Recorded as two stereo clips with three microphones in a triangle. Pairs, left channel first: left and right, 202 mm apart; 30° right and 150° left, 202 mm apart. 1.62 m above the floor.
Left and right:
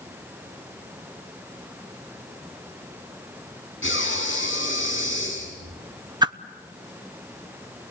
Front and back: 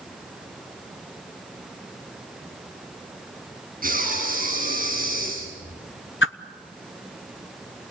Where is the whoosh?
20° right, 0.9 m.